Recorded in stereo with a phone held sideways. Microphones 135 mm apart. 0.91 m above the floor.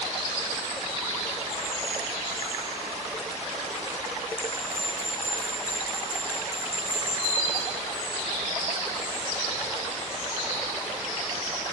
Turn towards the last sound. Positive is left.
turn(degrees=-25)  # may be behind; listen again after turning